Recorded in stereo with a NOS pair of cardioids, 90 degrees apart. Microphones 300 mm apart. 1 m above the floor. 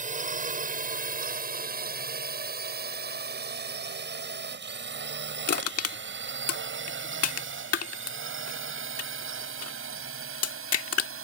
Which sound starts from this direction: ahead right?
A drone, at 0.0 s.